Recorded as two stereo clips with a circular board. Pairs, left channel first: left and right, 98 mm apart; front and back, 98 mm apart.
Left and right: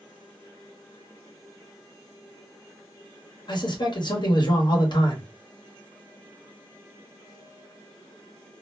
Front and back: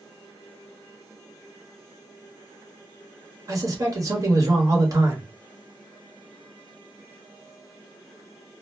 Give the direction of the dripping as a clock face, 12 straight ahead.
No dripping in this recording.